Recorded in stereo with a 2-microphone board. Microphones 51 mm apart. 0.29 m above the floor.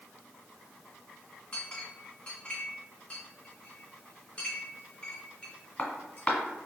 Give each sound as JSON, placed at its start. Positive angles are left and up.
{"t": 1.5, "sound": "a clink", "side_deg": 25, "distance_m": 1.5}